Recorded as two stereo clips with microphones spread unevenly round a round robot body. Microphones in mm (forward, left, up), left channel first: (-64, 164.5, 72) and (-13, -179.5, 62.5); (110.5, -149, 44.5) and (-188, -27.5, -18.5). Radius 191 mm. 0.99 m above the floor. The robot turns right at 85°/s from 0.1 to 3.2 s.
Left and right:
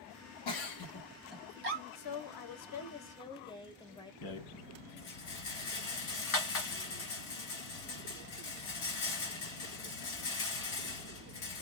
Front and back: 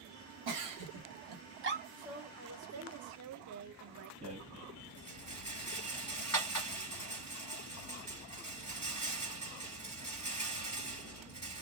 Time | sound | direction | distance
0.5 | a giggle | 115° left | 1.0 m
1.9 | a woman speaking | 70° left | 0.8 m
4.2 | a rattle | 55° left | 1.8 m